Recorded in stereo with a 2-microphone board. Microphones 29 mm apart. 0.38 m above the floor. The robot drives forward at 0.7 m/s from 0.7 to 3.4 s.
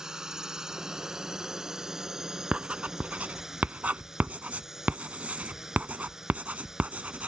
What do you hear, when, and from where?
0.0 s a drone: 20° right (ahead or behind); by 7.3 s 15° right (ahead or behind)
2.5 s writing: 45° right (ahead or behind); by 7.3 s 75° right (ahead or behind)